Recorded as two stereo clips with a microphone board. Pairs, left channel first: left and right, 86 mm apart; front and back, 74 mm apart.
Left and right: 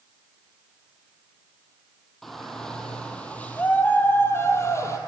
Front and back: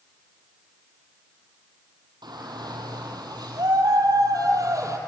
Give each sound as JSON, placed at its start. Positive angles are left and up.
{"t": 2.2, "sound": "a shout", "azimuth_deg": 180, "distance_m": 4.0}